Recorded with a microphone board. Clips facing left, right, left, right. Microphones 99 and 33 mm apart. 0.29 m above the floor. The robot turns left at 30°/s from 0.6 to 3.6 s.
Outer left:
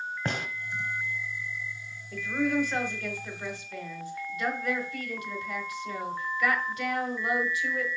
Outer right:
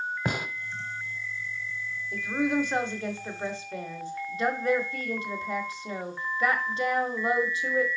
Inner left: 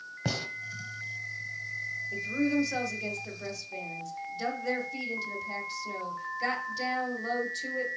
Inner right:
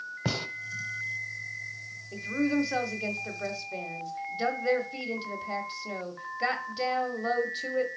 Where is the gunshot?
10° right (ahead or behind), 0.8 m.